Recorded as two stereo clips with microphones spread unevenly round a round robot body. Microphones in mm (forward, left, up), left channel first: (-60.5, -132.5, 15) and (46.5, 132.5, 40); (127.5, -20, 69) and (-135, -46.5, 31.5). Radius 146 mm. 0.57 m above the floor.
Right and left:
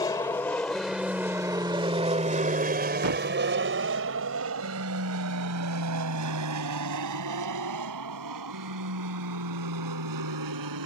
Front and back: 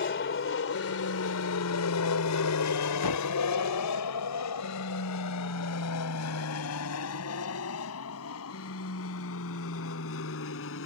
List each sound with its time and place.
0.0 s an aircraft: 35° right; by 10.9 s 50° left
3.0 s a thud: 25° left